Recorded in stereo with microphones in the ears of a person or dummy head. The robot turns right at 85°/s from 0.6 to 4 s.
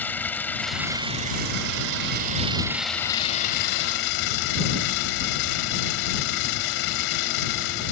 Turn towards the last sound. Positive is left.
turn(degrees=95)